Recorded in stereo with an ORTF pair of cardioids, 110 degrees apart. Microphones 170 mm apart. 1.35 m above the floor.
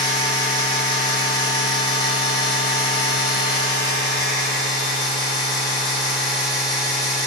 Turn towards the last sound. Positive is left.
turn(degrees=25)